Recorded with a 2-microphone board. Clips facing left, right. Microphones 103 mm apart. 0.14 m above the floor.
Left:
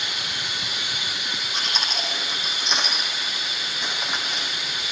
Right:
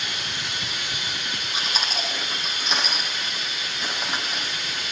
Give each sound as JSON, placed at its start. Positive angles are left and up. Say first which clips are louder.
{"t": 0.0, "sound": "running water", "louder": "even", "side_deg": 5, "distance_m": 9.0}
{"t": 1.5, "sound": "chewing", "louder": "right 1 dB", "side_deg": -5, "distance_m": 5.5}